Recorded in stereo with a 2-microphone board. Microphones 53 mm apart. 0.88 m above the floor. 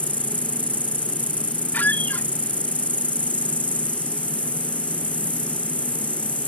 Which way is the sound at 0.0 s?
25° left (ahead or behind).